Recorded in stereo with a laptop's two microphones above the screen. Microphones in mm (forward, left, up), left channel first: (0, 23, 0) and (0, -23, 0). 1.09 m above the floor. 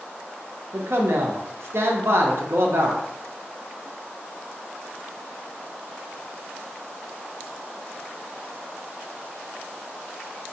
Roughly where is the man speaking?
Right.